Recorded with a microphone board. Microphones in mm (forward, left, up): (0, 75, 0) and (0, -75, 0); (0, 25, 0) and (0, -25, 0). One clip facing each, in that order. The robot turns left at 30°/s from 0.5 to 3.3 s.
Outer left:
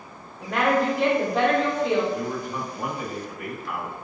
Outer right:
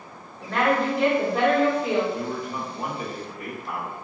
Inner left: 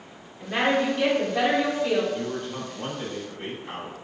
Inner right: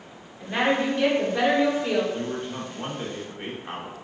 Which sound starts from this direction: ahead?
A woman speaking, at 0.4 s.